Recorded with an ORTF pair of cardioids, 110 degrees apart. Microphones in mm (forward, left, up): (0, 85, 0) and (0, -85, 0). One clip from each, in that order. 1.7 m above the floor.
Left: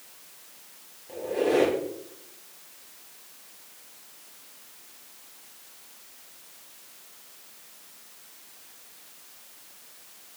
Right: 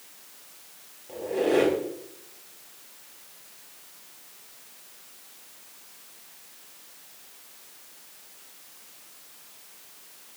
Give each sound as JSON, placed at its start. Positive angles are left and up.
{"t": 1.1, "sound": "a squeak", "azimuth_deg": -5, "distance_m": 4.5}